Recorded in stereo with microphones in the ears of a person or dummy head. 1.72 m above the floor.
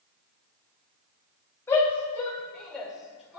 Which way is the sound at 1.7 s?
15° left (ahead or behind).